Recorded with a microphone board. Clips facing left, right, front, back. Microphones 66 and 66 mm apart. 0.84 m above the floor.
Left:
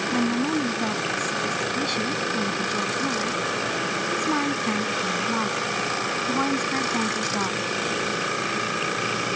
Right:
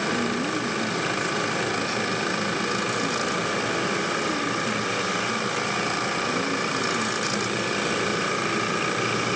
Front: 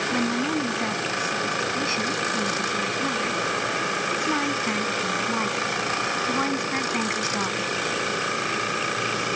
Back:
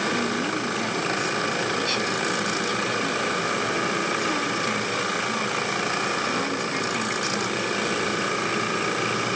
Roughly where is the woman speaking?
Ahead left.